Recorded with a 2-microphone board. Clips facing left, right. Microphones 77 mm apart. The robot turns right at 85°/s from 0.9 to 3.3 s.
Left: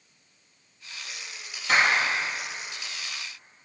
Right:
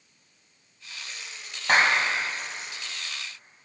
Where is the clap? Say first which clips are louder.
Right 1 dB; 50° right (ahead or behind), 1.9 m; by 2.0 s 40° right (ahead or behind), 1.9 m.